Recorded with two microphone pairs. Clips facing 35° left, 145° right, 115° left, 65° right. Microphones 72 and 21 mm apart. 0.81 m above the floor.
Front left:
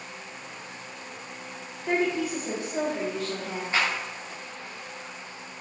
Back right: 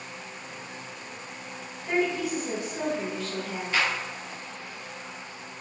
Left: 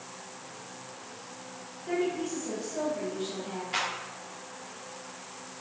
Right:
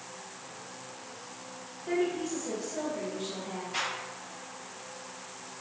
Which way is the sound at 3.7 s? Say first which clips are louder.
Even, left 2 dB; 100° left.